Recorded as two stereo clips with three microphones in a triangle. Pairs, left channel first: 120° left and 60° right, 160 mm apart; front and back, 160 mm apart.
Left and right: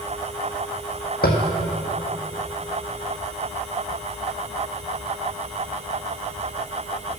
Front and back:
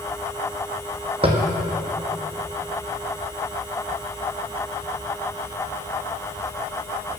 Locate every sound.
1.2 s tapping: 125° left, 1.2 m